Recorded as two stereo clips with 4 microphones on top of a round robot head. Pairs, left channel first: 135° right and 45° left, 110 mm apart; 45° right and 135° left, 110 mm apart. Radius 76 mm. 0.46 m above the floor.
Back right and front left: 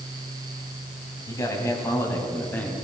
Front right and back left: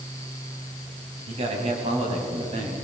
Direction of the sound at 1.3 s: 165° left.